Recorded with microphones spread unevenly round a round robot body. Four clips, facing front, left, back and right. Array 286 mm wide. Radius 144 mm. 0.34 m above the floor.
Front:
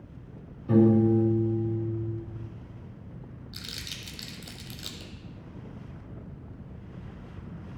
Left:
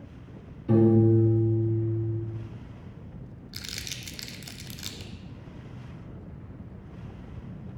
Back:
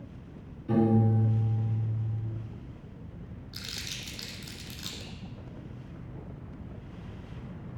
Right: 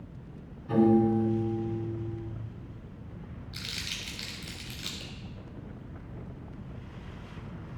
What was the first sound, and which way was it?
A piano, 100° left.